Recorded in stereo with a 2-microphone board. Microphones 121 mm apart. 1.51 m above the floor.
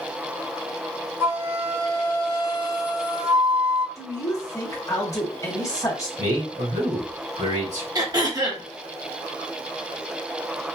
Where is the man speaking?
80° right, 1.9 m.